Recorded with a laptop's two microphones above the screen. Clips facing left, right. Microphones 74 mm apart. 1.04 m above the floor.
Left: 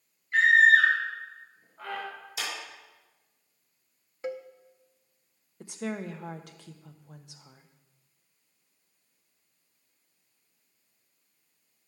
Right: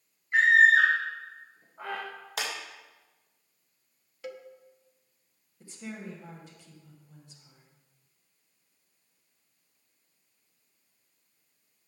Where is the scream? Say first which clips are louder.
Even; 20° right (ahead or behind), 1.2 m.